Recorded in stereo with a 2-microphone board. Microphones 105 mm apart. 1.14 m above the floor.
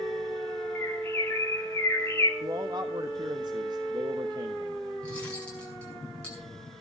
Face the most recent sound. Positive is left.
turn(degrees=10)  # may be behind; listen again after turning